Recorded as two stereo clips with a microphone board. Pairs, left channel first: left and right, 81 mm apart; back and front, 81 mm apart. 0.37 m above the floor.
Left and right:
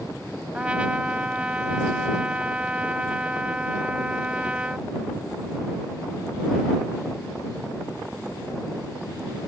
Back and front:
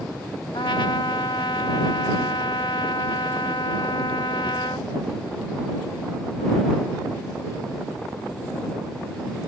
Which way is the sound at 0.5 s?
165° right.